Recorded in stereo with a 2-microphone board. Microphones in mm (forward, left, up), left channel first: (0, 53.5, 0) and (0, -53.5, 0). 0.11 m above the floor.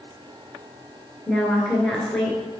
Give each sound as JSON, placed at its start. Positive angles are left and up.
{"t": 1.3, "sound": "a woman speaking", "side_deg": 5, "distance_m": 1.7}